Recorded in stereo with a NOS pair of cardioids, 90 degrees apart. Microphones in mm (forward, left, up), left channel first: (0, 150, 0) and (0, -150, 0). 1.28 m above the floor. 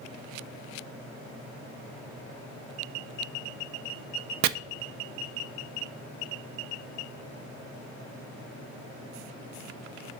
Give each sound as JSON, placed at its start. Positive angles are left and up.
{"t": 4.4, "sound": "chopping", "azimuth_deg": -70, "distance_m": 0.6}